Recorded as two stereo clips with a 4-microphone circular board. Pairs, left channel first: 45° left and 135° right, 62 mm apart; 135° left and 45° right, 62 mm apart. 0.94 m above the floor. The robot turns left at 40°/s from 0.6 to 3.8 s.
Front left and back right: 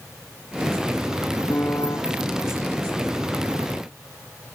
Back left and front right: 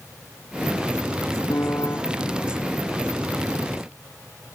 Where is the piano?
100° left; by 2.0 s 80° left.